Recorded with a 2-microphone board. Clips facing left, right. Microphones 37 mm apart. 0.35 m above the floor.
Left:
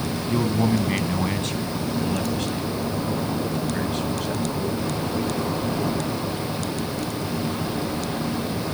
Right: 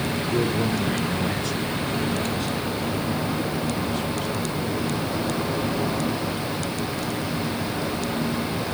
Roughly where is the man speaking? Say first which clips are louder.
Left 3 dB; left.